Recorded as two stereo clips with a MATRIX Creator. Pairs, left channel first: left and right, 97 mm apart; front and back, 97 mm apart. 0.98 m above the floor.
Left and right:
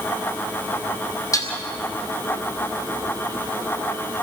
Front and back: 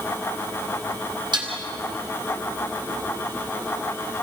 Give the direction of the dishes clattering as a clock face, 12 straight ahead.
7 o'clock.